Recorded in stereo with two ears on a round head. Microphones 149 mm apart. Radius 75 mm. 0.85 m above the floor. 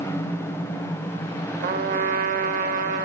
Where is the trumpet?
50° right (ahead or behind), 0.8 m.